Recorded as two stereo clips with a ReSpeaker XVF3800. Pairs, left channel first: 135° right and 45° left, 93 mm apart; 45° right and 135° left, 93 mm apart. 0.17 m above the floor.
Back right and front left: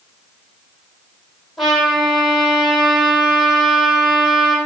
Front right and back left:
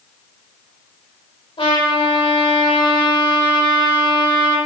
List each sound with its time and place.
1.6 s a trumpet: 45° right, 5 m